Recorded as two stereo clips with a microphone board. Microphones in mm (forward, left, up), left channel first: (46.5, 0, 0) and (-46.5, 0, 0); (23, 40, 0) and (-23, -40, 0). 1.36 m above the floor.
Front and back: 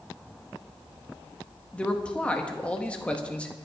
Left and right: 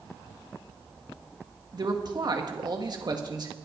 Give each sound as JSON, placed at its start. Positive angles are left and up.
{"t": 1.7, "sound": "a man speaking", "azimuth_deg": -75, "distance_m": 1.6}